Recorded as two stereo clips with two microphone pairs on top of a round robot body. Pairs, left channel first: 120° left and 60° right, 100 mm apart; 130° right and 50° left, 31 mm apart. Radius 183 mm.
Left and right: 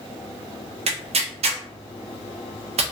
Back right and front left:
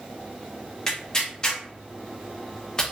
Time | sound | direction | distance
0.9 | tearing paper | 60° right | 0.5 m